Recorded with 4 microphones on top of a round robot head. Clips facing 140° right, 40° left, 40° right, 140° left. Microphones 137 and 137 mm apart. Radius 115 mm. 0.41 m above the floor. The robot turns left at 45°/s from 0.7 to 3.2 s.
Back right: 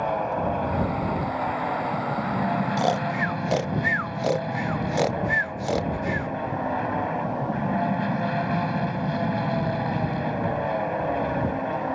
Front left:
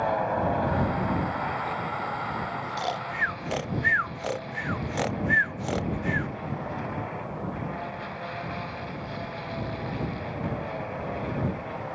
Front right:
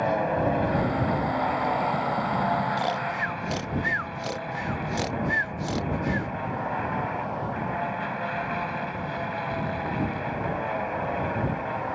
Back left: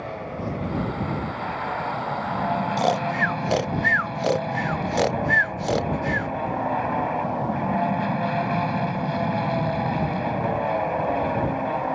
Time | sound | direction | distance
0.0 | an aircraft | 55° right | ?
2.8 | snoring | 175° right | ?